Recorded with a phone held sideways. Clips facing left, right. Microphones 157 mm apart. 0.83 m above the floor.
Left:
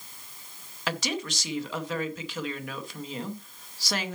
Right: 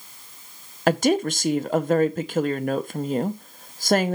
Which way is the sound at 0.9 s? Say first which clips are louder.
Right 12 dB; 50° right (ahead or behind).